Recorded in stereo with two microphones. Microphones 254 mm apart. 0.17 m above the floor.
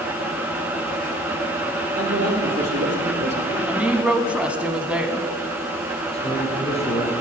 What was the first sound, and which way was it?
A man speaking, 60° right (ahead or behind).